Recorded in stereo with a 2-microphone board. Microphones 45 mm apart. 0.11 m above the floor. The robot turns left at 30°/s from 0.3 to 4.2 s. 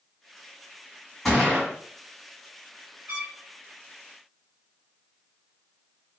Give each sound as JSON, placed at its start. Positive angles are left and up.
{"t": 1.2, "sound": "a gunshot", "side_deg": 5, "distance_m": 1.5}
{"t": 3.1, "sound": "a trumpet", "side_deg": -45, "distance_m": 1.9}